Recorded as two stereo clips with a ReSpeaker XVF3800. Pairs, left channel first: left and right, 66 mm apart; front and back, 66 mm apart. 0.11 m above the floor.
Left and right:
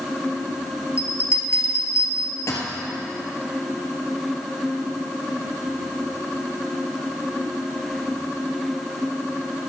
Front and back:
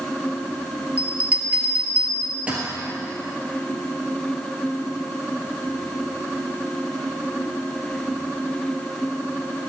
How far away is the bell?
About 1.6 m.